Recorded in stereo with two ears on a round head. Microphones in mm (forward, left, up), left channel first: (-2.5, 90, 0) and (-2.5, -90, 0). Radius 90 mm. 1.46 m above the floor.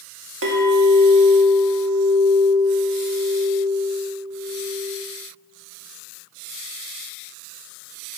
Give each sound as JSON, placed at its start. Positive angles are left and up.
{"t": 0.4, "sound": "a clink", "side_deg": -70, "distance_m": 2.5}